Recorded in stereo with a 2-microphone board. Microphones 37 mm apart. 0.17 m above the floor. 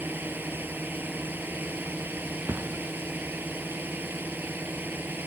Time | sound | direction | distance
0.0 | a drone | 60° right (ahead or behind) | ?
2.5 | a thud | 60° right (ahead or behind) | ?